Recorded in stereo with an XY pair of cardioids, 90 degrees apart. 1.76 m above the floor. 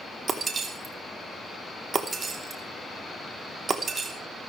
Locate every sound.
0.3 s breaking glass: 45° right, 3 m